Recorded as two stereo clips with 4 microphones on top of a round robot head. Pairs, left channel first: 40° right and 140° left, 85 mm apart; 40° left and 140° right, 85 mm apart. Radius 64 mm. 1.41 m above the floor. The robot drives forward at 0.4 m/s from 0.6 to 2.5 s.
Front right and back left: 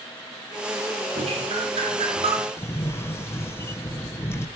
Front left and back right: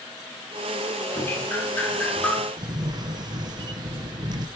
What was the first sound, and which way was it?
Dripping, 110° left.